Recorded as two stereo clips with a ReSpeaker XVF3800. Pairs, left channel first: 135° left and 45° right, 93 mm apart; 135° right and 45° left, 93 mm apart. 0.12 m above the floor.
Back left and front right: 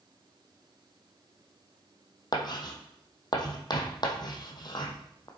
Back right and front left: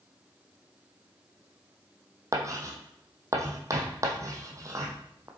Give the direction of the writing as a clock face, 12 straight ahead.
9 o'clock.